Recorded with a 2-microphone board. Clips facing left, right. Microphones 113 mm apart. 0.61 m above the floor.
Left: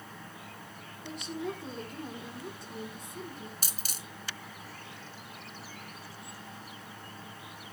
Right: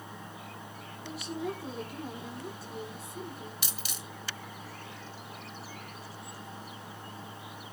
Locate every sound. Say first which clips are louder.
1.0 s a woman speaking: right 1 dB; 5° right (ahead or behind), 2.5 m
3.6 s a dropped coin: right 2 dB; 40° left (ahead or behind), 1.2 m